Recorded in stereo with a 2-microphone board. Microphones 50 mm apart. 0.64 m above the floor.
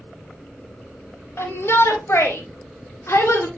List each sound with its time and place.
1.4 s a shout: 60° left (ahead or behind), 4 m; by 3.5 s 65° left (ahead or behind), 2.5 m